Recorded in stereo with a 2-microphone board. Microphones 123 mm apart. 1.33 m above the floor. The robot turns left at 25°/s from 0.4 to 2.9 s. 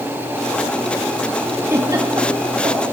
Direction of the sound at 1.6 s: 20° right (ahead or behind).